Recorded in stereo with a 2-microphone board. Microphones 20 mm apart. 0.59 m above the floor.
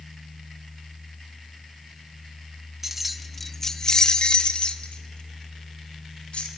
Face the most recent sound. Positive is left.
turn(degrees=75)  # may be behind; listen again after turning